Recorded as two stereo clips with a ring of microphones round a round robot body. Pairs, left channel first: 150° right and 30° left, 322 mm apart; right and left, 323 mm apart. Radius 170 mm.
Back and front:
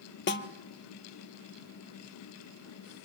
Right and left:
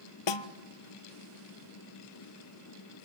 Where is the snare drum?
90° right, 1.4 m.